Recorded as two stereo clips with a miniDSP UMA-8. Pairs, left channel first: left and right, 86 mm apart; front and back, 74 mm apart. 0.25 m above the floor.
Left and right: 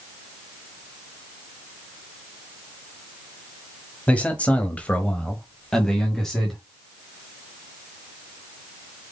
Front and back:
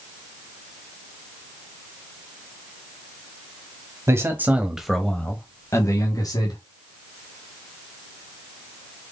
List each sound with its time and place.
4.1 s a man speaking: 155° left, 1.2 m; by 6.6 s straight ahead, 1.7 m